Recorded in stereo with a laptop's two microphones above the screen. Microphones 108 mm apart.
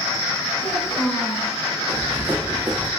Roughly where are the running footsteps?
Right.